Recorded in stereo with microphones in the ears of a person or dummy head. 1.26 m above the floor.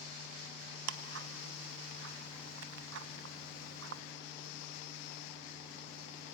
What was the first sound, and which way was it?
Ticking, 80° right.